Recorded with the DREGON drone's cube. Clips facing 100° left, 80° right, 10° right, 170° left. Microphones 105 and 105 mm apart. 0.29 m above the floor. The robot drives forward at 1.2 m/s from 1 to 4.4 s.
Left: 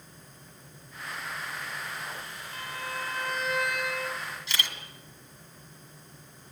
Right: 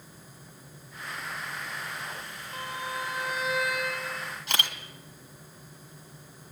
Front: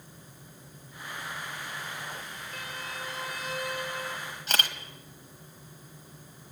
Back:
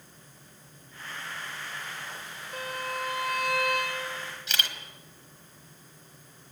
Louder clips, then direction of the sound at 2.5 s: Right 2 dB, back 8 dB; 135° right.